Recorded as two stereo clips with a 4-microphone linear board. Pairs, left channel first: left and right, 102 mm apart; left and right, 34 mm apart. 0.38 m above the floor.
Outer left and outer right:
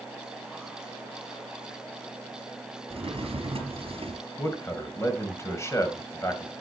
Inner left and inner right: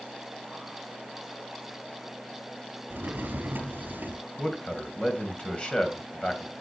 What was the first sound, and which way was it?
A drawer, 65° right (ahead or behind).